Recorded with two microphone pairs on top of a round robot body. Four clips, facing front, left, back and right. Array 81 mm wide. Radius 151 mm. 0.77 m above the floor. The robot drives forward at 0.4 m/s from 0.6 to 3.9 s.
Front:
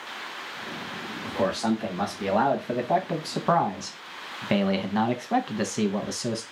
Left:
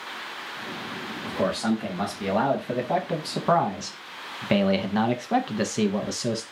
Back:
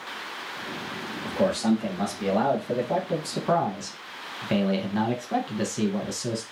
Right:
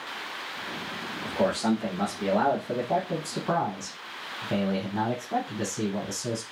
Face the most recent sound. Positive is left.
turn(degrees=35)